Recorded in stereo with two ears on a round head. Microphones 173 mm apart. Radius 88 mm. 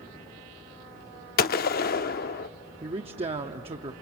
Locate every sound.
1.4 s a gunshot: 50° left (ahead or behind), 0.6 m
2.8 s a man speaking: 30° right (ahead or behind), 0.8 m